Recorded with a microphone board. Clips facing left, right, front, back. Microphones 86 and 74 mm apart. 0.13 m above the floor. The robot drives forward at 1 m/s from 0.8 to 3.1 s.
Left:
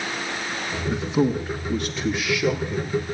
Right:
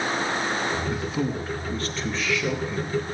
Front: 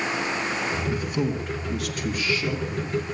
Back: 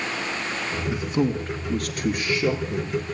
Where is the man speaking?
120° left, 1.1 m; by 3.0 s 170° left, 2.5 m.